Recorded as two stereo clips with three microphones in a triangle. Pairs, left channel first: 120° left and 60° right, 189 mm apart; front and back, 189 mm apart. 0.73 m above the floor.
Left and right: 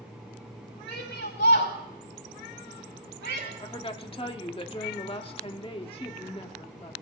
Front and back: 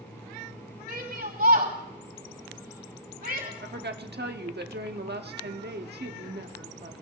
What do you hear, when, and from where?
0.9 s a shout: 145° left, 5 m
3.6 s a woman speaking: 175° left, 1.3 m